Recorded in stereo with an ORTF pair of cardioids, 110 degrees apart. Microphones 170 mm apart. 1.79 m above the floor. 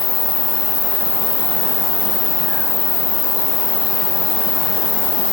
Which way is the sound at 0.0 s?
55° left.